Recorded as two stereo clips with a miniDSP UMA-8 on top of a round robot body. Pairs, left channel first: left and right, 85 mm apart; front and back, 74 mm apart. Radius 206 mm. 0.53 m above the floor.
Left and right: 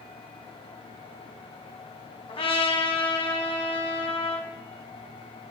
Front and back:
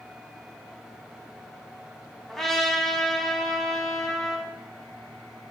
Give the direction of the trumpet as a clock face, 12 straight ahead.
9 o'clock.